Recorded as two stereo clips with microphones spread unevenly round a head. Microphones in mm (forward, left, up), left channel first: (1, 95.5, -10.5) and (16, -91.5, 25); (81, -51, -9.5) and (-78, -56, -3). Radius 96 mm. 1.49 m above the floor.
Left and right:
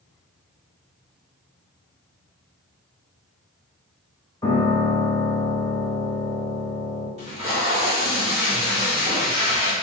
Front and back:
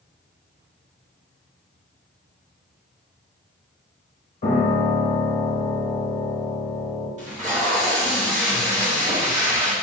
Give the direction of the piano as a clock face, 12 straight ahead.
11 o'clock.